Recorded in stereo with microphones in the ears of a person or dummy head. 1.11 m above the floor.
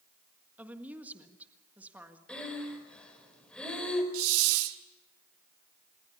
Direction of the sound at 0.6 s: 10° right (ahead or behind).